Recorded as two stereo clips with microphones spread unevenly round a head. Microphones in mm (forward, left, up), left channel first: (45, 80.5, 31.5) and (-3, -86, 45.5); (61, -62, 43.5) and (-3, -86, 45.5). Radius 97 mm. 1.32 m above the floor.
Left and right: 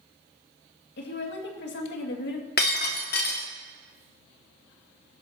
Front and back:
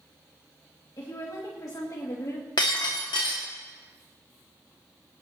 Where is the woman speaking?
65° left, 2.5 m.